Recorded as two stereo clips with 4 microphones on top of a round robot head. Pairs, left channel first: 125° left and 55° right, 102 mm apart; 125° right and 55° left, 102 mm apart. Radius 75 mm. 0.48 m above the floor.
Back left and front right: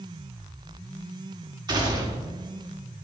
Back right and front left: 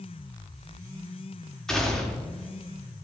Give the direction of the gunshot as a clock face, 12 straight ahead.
1 o'clock.